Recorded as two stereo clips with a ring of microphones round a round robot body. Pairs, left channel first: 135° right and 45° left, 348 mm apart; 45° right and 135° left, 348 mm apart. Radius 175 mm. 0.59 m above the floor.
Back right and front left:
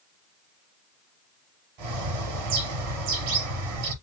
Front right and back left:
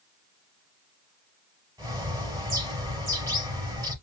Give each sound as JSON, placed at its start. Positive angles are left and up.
{"t": 1.8, "sound": "a bird", "azimuth_deg": 55, "distance_m": 4.0}